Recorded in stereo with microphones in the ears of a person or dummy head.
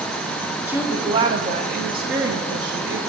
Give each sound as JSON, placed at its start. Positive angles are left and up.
{"t": 0.7, "sound": "a woman speaking", "side_deg": -15, "distance_m": 1.0}